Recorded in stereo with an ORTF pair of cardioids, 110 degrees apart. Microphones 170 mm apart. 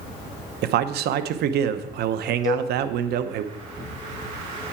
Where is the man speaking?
70° right, 0.9 m.